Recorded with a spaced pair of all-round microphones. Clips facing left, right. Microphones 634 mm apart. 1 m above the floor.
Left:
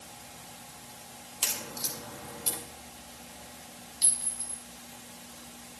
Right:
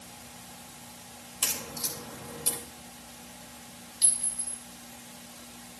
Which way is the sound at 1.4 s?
65° right (ahead or behind).